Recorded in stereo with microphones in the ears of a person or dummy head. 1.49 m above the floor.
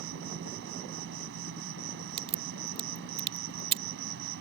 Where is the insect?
65° right (ahead or behind).